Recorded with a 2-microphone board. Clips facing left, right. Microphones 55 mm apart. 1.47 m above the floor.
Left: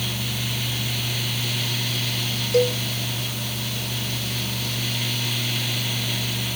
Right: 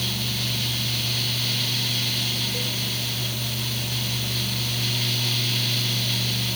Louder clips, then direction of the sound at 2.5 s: Left 11 dB; 80° left.